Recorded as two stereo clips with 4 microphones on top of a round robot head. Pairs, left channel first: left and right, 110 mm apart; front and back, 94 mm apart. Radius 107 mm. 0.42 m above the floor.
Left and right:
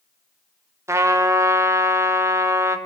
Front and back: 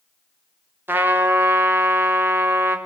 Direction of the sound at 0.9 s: 130° right.